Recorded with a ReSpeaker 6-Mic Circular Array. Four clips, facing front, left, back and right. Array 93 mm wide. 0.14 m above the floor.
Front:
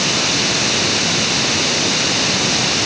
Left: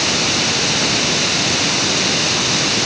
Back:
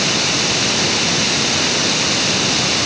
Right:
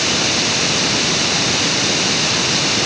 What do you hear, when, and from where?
Only background noise.